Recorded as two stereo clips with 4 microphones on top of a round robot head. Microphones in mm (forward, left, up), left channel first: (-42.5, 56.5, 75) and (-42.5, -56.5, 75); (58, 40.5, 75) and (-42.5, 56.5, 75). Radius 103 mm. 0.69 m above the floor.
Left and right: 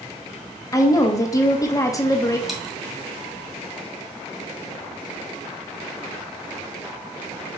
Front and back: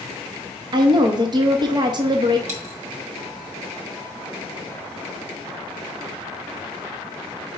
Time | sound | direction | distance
0.7 | a woman speaking | 145° left | 1.1 m
2.5 | a dropped coin | straight behind | 1.8 m